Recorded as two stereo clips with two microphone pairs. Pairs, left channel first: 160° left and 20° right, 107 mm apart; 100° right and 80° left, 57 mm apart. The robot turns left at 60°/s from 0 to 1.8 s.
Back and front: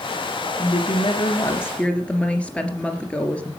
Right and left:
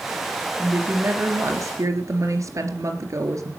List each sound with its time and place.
0.6 s a woman speaking: 150° left, 3 m; by 3.5 s 80° left, 3 m